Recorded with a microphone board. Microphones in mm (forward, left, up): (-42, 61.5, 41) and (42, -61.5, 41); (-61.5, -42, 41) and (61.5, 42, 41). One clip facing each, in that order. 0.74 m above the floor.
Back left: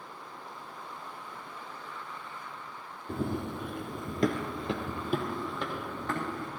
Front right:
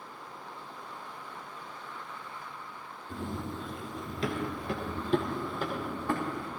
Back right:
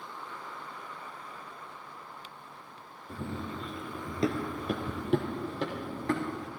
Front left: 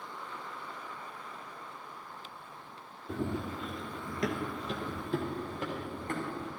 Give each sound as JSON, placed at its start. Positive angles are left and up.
{"t": 3.1, "sound": "running footsteps", "azimuth_deg": 100, "distance_m": 1.8}